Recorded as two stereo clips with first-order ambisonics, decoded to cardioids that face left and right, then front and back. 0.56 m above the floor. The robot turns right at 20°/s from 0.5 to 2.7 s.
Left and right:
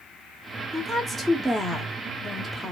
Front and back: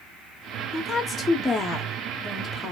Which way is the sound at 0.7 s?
40° right.